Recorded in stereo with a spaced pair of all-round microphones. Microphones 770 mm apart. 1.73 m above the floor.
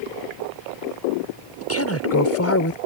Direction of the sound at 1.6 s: 20° left (ahead or behind).